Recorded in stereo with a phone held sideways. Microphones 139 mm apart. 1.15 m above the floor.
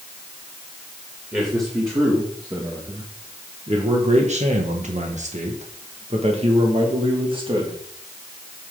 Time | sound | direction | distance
1.3 | a man speaking | 20° right (ahead or behind) | 2 m